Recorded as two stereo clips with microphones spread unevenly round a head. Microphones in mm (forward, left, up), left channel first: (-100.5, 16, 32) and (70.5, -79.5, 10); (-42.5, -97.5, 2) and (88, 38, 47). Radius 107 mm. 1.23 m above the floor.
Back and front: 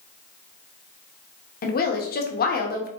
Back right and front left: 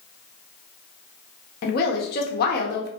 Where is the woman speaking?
165° right, 0.6 m.